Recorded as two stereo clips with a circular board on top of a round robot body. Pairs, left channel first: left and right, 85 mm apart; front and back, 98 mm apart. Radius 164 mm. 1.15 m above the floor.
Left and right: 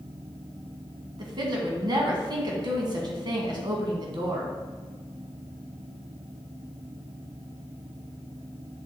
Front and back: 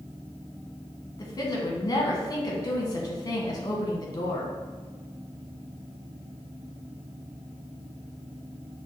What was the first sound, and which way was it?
A woman speaking, 55° right.